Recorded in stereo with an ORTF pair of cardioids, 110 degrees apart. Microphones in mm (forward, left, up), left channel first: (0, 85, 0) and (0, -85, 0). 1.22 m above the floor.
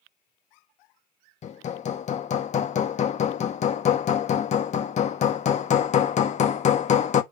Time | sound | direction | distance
1.4 | hammering | 45° left | 1.1 m